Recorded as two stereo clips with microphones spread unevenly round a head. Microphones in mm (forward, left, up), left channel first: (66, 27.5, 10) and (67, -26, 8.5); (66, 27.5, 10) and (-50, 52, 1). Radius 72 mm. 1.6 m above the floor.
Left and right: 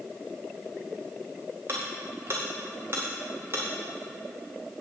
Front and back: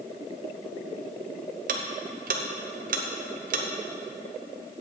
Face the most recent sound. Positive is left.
turn(degrees=-160)